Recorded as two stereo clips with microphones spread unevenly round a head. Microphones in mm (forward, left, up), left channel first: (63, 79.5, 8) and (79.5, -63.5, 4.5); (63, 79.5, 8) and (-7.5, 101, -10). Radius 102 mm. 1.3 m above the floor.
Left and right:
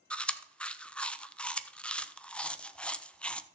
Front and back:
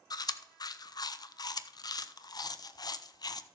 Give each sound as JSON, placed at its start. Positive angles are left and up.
{"t": 0.1, "sound": "chewing", "azimuth_deg": 15, "distance_m": 0.6}